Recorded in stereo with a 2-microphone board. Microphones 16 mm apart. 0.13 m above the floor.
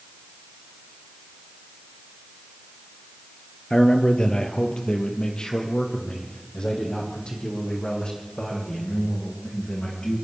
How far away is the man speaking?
About 3 m.